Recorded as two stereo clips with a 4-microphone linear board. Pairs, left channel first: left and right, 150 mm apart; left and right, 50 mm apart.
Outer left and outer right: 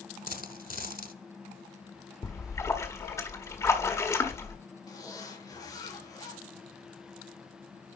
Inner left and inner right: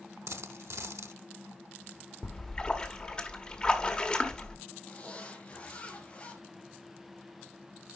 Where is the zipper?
25° left (ahead or behind), 4.5 m.